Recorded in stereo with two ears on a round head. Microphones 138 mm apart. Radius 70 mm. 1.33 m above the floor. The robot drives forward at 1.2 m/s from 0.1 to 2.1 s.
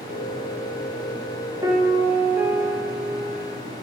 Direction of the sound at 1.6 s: 25° right (ahead or behind).